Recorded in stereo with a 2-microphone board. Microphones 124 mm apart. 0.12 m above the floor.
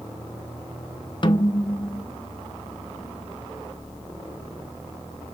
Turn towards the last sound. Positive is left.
turn(degrees=40)  # may be behind; listen again after turning